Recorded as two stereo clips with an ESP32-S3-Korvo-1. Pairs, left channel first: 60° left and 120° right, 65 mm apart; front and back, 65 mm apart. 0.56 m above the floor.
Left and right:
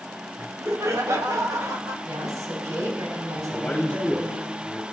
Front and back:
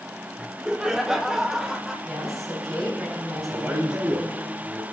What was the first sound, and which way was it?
Laughter, 115° right.